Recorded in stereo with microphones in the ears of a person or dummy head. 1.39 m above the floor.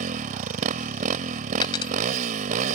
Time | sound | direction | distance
0.0 | a motorcycle | 45° right (ahead or behind) | ?
1.6 | a dropped coin | 25° left (ahead or behind) | ?